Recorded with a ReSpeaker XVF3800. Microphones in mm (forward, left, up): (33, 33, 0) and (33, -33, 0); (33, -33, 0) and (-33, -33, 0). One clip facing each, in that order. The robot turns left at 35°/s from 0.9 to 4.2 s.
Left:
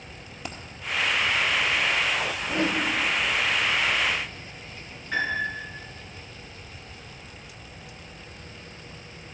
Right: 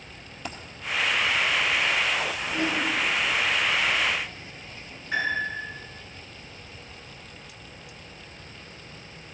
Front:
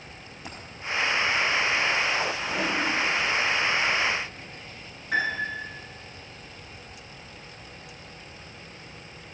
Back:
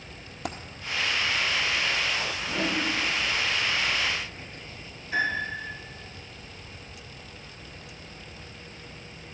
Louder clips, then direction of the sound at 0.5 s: Right 1 dB, back 8 dB; 175° left.